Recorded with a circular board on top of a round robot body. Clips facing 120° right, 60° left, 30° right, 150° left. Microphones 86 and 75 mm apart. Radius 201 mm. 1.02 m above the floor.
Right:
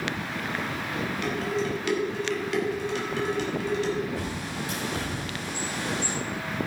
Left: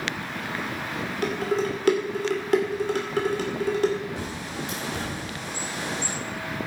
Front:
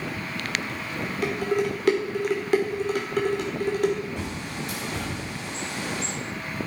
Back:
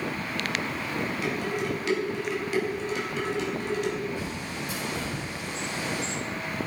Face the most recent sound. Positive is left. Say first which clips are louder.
# even, front 1 dB
turn(degrees=-5)